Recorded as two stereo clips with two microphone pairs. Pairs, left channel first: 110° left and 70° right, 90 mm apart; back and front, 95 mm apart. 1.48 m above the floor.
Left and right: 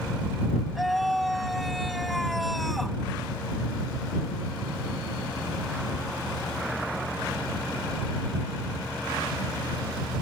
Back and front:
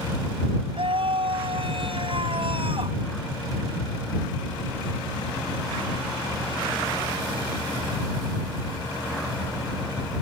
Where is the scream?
20° left.